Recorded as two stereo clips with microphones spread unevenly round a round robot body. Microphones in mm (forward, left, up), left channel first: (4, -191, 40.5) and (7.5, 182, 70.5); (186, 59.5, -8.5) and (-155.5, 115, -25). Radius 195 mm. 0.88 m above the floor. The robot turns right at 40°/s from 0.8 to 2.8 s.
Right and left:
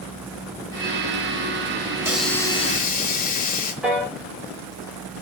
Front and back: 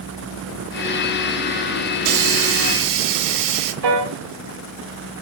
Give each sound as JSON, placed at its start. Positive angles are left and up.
{"t": 2.0, "sound": "a hiss", "azimuth_deg": 170, "distance_m": 0.9}
{"t": 3.8, "sound": "a piano", "azimuth_deg": 180, "distance_m": 3.0}